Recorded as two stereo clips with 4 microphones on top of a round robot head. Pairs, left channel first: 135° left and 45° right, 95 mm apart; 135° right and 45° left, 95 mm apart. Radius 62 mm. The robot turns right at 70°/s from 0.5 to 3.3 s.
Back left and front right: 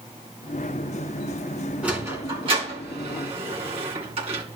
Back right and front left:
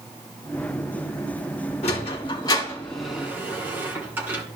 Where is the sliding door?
125° right, 3 m; by 4.4 s 25° right, 3 m.